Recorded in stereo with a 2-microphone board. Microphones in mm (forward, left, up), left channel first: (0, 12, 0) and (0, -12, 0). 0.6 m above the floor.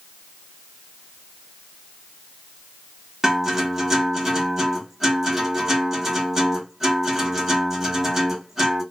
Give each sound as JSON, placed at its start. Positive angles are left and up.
{"t": 3.2, "sound": "a guitar", "side_deg": -15, "distance_m": 1.3}